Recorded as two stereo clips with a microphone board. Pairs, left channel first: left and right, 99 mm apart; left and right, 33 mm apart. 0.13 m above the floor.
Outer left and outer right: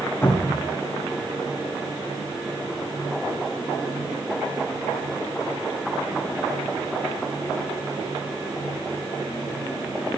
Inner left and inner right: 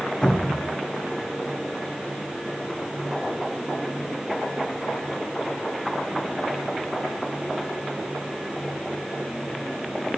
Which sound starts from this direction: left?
A cupboard door, at 0.2 s.